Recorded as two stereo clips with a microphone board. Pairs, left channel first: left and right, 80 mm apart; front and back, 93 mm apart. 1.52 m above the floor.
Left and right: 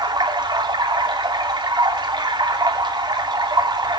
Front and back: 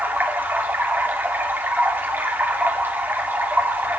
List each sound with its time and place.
0.0 s running water: 110° right, 2.5 m